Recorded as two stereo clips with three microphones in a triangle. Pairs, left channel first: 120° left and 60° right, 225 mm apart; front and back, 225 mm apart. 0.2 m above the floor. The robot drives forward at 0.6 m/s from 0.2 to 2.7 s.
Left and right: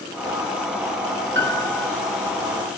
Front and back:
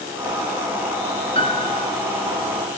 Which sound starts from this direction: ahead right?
A piano, at 1.4 s.